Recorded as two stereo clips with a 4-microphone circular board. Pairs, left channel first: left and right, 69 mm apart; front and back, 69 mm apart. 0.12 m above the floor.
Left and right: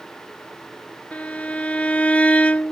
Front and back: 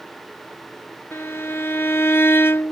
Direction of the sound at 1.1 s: 30° left.